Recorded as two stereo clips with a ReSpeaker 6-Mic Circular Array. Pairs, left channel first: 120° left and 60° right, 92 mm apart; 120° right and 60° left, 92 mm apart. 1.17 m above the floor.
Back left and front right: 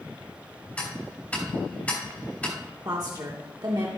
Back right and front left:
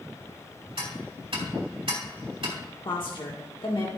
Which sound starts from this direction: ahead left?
Ticking, at 0.8 s.